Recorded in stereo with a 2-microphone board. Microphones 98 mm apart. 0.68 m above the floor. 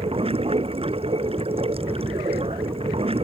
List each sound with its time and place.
0.0 s running water: 85° right